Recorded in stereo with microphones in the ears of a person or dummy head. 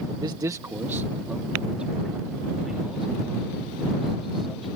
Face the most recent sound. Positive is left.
turn(degrees=0)  # may be behind; listen again after turning